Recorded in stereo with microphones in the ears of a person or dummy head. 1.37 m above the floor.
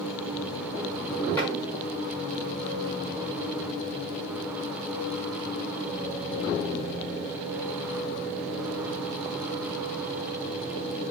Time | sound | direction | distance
1.4 | tapping | 15° left (ahead or behind) | 6.5 m